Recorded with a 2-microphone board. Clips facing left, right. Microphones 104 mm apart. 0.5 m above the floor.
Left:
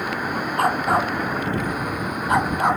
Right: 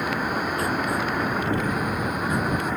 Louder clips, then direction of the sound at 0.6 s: Left 5 dB; 65° left (ahead or behind).